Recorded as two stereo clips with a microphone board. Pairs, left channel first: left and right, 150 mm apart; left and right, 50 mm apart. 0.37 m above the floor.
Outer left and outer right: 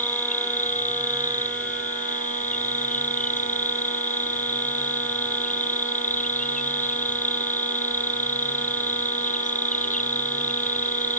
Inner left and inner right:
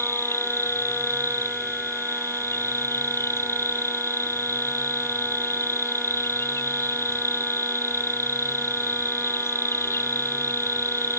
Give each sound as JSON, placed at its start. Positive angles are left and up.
{"t": 0.0, "sound": "an insect", "side_deg": 60}